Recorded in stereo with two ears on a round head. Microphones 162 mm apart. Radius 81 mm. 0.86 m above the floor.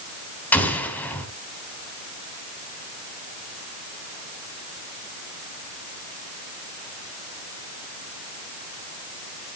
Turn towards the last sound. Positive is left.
turn(degrees=10)  # may be behind; listen again after turning